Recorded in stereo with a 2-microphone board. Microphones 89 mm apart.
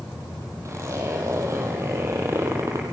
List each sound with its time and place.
0.7 s a zipper: 35° right (ahead or behind), 5 m